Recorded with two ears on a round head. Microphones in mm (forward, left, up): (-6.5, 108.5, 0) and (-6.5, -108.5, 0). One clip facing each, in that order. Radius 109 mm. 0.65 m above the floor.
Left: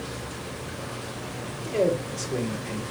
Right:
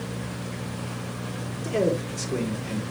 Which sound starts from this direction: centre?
A man speaking, at 1.6 s.